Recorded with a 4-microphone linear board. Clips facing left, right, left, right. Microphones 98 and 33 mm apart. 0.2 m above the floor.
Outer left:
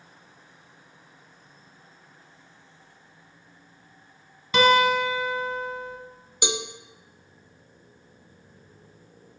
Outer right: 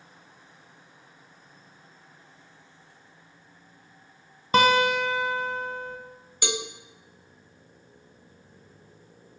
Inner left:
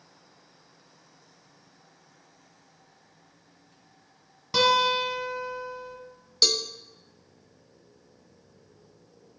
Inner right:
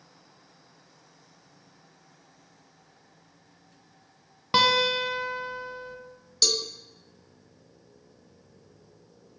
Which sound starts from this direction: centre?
A cowbell, at 6.4 s.